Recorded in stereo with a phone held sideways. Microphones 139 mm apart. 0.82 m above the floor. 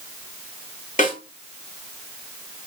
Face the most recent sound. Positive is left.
turn(degrees=65)  # may be behind; listen again after turning